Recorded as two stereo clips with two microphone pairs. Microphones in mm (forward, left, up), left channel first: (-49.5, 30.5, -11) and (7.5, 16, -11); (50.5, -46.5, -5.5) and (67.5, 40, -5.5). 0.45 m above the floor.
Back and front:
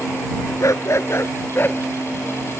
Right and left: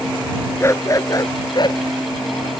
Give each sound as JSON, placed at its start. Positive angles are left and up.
{"t": 0.6, "sound": "a dog barking", "azimuth_deg": -160}